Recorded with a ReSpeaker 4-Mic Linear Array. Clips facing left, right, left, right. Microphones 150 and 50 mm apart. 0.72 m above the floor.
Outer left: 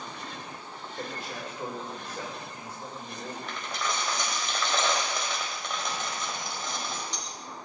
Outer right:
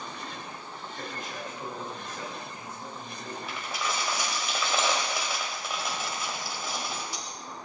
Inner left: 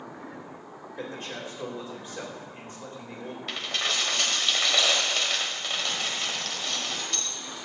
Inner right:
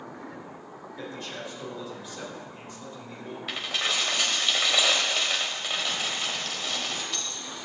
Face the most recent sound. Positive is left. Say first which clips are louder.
# even, inner right 1 dB
turn(degrees=-5)  # may be behind; listen again after turning